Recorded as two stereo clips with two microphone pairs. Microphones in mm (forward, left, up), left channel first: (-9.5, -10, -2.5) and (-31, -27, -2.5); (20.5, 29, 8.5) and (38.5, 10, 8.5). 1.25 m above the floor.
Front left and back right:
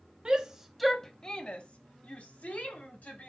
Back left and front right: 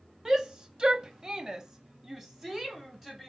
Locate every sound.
0.2 s a shout: 105° right, 0.6 m; by 3.3 s 35° left, 1.4 m